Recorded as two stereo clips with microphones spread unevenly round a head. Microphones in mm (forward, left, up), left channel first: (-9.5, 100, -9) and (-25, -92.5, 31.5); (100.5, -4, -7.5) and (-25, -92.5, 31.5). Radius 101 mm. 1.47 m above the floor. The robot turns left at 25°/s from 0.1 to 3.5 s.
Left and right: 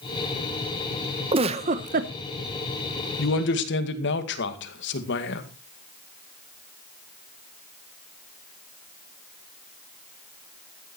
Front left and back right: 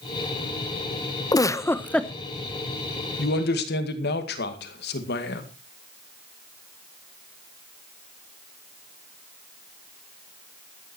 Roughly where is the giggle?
Ahead right.